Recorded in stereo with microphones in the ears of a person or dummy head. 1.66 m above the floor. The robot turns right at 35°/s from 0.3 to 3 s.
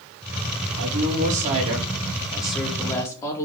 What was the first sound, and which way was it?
A woman speaking, 60° right.